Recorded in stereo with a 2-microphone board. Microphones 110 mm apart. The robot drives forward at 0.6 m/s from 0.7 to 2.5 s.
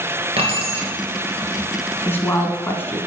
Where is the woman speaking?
20° left (ahead or behind), 1.0 m.